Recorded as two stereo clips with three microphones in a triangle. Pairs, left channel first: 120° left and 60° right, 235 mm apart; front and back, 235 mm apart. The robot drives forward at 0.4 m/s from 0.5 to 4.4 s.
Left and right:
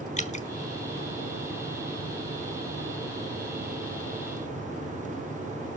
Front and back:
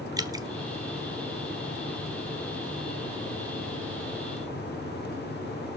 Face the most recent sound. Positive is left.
turn(degrees=165)